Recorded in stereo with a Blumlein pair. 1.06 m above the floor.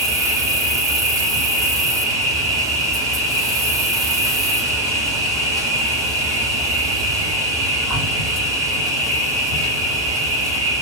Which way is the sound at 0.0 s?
25° right.